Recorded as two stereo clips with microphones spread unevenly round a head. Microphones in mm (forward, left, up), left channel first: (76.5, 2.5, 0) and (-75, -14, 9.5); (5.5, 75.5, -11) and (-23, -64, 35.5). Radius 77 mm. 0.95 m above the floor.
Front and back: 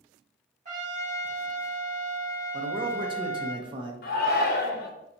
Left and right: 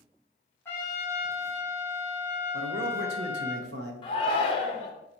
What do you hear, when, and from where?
0.7 s a trumpet: 145° left, 1.2 m
2.5 s a man speaking: 115° right, 0.8 m
4.0 s a shout: 30° left, 0.7 m